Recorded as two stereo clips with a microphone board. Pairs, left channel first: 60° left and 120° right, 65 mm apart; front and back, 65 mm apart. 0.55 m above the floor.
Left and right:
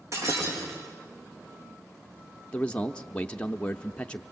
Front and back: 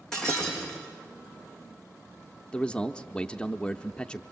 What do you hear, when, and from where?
0.1 s breaking glass: 80° right, 5 m
2.5 s a man speaking: 45° left, 0.6 m